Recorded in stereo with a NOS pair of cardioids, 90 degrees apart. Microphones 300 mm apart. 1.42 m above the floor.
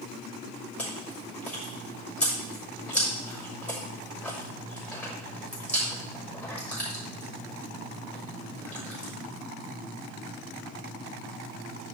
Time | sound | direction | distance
0.8 | chewing | 5° left | 6.5 m